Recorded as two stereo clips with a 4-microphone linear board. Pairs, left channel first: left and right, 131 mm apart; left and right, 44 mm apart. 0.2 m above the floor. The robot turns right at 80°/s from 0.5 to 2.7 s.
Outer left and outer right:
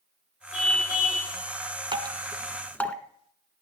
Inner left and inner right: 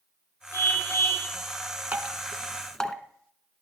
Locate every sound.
0.5 s a car horn: 110° left, 6 m; by 1.3 s 170° left, 6 m
1.9 s dripping: 40° right (ahead or behind), 0.9 m; by 3.0 s 10° left (ahead or behind), 0.9 m